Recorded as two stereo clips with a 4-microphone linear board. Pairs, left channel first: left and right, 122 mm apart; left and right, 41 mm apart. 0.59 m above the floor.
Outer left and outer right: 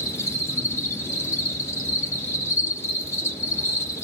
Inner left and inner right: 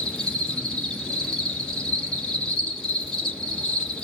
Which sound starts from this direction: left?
An insect, at 0.0 s.